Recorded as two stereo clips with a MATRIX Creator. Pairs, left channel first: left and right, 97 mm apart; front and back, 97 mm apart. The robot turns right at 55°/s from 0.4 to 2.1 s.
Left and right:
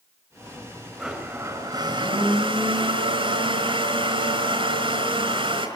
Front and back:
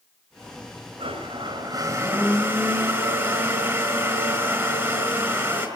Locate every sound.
1.0 s a blender: straight behind, 4.5 m; by 5.7 s 115° right, 4.5 m